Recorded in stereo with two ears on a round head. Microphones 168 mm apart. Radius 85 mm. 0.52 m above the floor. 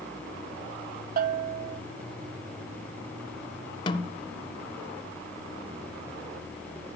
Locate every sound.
1.2 s a bell: 45° right (ahead or behind), 0.5 m
3.9 s a snare drum: 25° left (ahead or behind), 0.6 m